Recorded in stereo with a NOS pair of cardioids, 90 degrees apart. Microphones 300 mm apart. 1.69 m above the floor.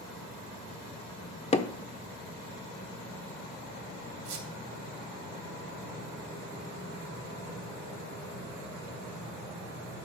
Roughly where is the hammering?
Ahead.